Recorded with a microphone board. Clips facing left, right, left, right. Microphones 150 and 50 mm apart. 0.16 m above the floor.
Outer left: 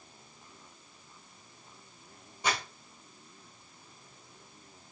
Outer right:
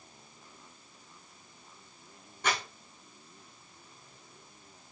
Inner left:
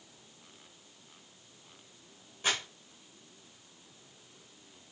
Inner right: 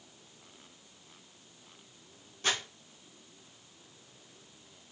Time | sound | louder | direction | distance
2.4 | crumpling | even, even | 15° left (ahead or behind) | 3 m